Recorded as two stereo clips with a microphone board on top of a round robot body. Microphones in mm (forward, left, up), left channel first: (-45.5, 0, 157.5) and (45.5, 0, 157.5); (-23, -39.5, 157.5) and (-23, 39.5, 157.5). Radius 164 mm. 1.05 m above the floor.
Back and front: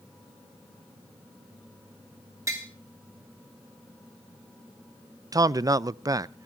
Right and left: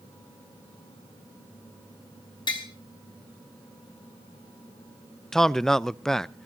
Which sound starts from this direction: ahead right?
Tapping, at 2.5 s.